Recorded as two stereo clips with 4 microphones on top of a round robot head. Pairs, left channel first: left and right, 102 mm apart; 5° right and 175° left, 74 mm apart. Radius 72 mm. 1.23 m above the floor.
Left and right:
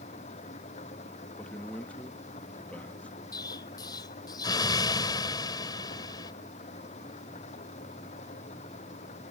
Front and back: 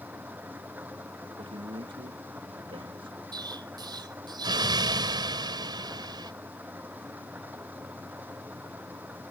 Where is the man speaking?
165° left.